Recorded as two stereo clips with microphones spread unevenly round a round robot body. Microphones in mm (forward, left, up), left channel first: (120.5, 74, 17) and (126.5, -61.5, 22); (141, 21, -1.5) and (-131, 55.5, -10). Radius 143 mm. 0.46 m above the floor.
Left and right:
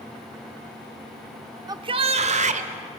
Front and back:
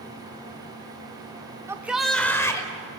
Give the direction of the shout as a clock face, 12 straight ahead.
4 o'clock.